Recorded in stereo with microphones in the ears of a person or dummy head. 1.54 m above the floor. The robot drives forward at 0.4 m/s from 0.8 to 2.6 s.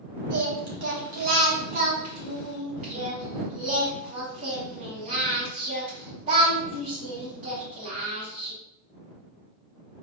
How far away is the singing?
About 1.0 m.